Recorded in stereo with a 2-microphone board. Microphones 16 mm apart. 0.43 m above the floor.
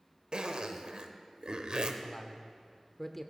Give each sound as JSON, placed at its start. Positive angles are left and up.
{"t": 0.3, "sound": "a zipper", "side_deg": -55, "distance_m": 0.7}
{"t": 2.0, "sound": "a man speaking", "side_deg": 15, "distance_m": 0.8}